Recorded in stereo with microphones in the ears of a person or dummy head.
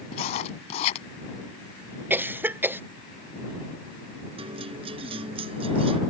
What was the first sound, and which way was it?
Writing, 35° left (ahead or behind).